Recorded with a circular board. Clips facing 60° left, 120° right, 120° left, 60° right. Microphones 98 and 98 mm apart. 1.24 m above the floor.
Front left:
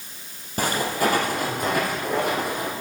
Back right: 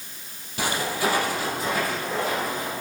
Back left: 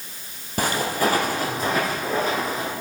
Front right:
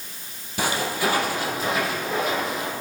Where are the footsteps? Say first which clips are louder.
Front left 3 dB, back left 2 dB; 90° left, 2 m; by 2.7 s 70° left, 2.5 m.